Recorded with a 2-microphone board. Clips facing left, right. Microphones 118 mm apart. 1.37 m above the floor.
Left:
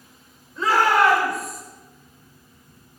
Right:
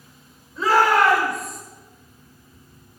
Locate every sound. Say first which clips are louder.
0.6 s a shout: right 1 dB; centre (ahead or behind), 5.5 m; by 1.6 s 5° left (ahead or behind), 7 m